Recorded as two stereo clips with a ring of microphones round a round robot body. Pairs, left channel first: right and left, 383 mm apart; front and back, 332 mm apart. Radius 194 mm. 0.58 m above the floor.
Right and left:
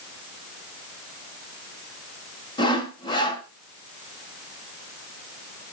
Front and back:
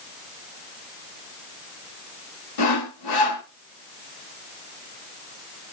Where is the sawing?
10° right, 2.0 m.